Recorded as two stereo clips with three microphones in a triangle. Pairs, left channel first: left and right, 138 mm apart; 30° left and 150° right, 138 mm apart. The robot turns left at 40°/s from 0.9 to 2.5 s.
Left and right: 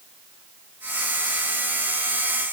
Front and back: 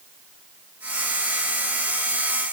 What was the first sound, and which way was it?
Only background noise.